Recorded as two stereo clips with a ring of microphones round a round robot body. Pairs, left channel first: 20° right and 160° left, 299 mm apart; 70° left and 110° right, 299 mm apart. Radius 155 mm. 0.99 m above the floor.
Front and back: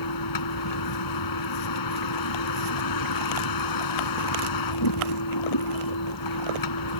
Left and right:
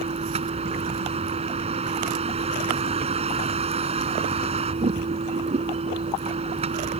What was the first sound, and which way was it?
A vehicle, 40° right.